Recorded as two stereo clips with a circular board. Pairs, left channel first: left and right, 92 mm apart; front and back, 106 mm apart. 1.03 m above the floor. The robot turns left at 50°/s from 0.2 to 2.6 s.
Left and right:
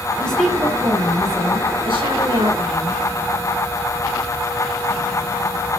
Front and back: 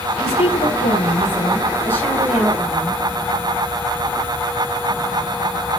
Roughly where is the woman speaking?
Ahead.